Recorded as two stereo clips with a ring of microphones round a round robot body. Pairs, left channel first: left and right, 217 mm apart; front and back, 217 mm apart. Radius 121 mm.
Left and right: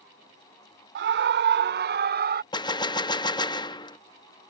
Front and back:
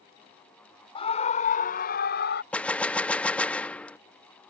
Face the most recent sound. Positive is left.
turn(degrees=75)